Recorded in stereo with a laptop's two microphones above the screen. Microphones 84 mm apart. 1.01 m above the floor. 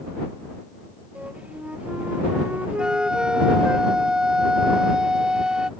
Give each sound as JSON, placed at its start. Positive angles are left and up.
{"t": 1.1, "sound": "a flute", "side_deg": -15}
{"t": 2.8, "sound": "a flute", "side_deg": -10}